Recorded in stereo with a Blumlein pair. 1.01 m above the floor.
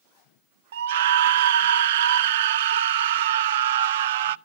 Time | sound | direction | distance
0.7 | a scream | 55° right | 0.5 m